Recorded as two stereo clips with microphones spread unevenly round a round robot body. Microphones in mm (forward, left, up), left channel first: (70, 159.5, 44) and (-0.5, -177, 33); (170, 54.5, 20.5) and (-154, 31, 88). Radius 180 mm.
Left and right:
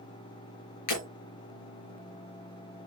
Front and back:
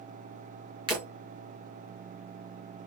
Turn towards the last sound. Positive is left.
turn(degrees=110)